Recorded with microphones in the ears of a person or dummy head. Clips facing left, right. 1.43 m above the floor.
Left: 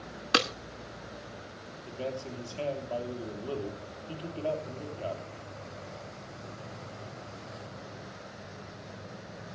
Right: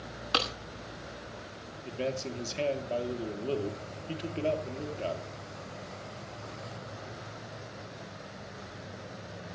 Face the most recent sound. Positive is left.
turn(degrees=-30)  # may be behind; listen again after turning